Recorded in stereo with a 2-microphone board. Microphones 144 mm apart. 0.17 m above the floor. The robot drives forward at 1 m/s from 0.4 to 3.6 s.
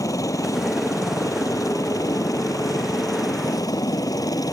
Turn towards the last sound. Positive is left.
turn(degrees=25)  # may be behind; listen again after turning